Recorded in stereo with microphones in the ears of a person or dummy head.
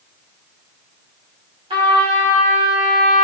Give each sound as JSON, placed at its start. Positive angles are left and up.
{"t": 1.7, "sound": "a trumpet", "side_deg": -30, "distance_m": 2.5}